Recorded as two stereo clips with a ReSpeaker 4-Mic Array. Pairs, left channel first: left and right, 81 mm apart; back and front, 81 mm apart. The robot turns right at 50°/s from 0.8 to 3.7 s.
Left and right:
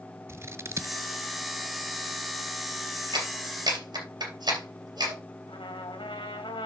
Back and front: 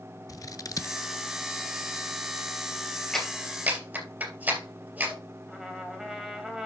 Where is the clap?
95° right, 3 m; by 5.2 s 65° right, 3 m.